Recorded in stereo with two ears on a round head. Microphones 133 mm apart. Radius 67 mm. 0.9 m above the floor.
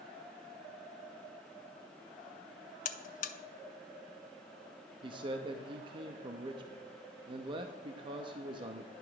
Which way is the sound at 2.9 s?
55° left (ahead or behind).